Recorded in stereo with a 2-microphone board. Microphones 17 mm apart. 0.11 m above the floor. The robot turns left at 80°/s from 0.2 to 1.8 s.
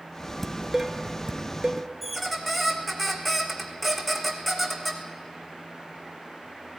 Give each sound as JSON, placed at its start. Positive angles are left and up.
{"t": 0.4, "sound": "dishes clattering", "side_deg": 5, "distance_m": 0.9}
{"t": 2.0, "sound": "a squeak", "side_deg": 0, "distance_m": 1.6}